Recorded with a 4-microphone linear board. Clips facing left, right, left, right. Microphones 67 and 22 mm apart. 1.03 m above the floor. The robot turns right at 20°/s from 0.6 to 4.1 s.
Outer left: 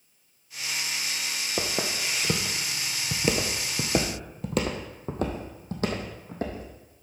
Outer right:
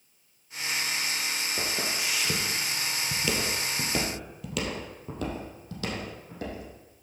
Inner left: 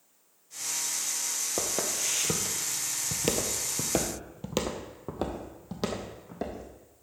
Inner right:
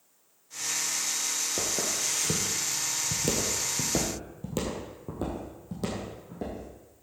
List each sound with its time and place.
1.6 s footsteps: 45° left (ahead or behind), 1.6 m; by 6.7 s 35° left (ahead or behind), 2.5 m